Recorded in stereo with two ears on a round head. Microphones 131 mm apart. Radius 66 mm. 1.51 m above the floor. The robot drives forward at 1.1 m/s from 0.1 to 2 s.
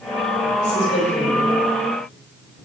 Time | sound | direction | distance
0.6 | a woman speaking | 80° left | 8 m